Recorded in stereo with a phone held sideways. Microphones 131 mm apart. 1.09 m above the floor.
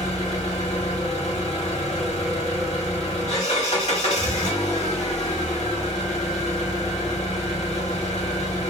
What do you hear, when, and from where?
0.0 s an engine running: 60° left (ahead or behind), 1.6 m